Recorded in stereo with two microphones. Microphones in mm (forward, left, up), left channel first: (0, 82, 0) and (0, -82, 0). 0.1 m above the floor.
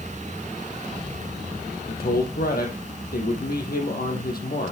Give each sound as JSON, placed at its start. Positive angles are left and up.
{"t": 1.9, "sound": "a man speaking", "side_deg": 70, "distance_m": 3.0}